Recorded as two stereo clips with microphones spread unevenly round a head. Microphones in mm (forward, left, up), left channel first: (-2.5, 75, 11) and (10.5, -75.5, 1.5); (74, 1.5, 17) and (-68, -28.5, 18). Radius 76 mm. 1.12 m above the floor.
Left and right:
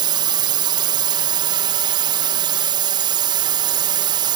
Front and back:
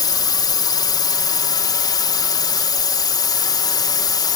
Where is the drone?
40° right.